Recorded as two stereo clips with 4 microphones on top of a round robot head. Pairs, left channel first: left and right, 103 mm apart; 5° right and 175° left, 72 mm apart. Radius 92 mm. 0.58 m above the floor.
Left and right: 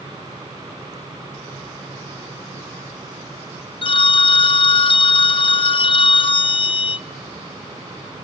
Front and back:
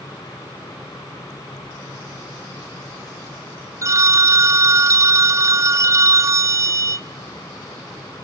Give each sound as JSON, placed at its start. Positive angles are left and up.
{"t": 3.8, "sound": "a phone ringing", "azimuth_deg": 125, "distance_m": 0.8}